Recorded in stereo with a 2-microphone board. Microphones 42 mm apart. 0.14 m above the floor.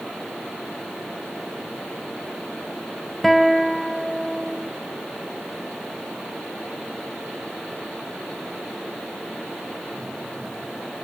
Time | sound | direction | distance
3.2 | a guitar | centre (ahead or behind) | ?